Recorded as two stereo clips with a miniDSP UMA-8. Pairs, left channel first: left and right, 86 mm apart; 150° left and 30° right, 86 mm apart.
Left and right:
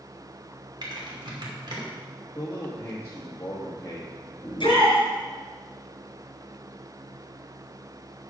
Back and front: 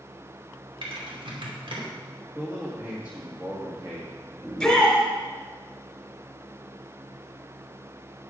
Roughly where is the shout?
Ahead left.